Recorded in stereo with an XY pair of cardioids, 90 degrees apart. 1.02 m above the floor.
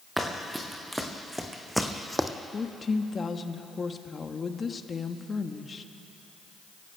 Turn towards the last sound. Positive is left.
turn(degrees=40)